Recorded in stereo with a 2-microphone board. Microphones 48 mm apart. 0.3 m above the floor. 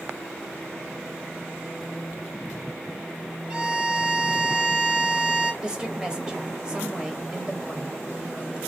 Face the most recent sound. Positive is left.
turn(degrees=-15)  # may be behind; listen again after turning